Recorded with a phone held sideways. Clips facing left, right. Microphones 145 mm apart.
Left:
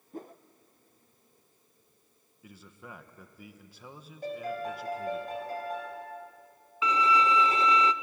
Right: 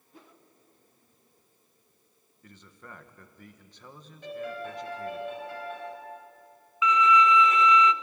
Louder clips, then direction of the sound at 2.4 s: Left 1 dB; 5° left (ahead or behind).